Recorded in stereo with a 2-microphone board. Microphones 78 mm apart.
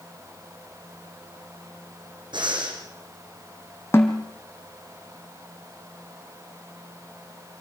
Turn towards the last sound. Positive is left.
turn(degrees=30)  # may be behind; listen again after turning